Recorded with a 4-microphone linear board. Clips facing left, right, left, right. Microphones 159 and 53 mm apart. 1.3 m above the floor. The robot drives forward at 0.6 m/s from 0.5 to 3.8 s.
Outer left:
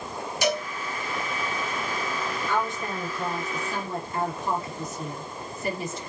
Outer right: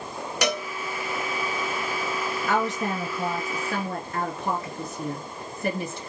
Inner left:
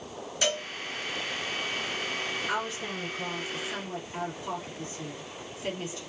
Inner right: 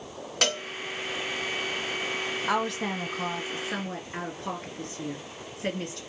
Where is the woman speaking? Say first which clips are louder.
Outer right 4 dB, inner right 4 dB; 80° right, 1.5 m; by 6.0 s 55° right (ahead or behind), 1.8 m.